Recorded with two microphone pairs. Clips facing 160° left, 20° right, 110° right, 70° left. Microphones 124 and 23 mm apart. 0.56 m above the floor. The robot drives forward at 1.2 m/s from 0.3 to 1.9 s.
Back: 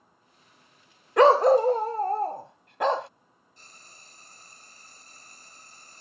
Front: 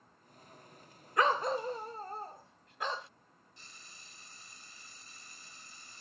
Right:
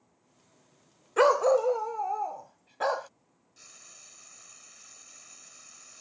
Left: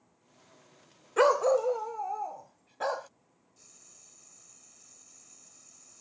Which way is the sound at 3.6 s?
160° right.